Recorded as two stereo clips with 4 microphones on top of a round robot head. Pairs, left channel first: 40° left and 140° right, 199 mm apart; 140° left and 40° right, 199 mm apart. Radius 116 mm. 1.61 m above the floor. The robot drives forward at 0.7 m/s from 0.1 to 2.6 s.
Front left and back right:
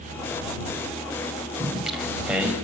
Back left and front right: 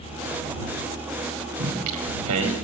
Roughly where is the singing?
Ahead right.